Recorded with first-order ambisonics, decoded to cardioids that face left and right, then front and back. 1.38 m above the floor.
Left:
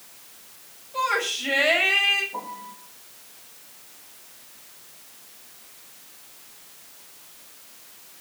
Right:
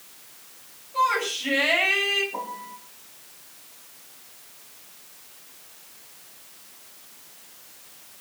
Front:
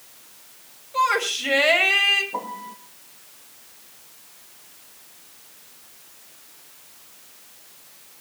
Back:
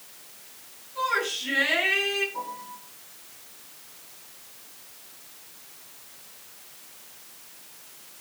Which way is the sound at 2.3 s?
10° right.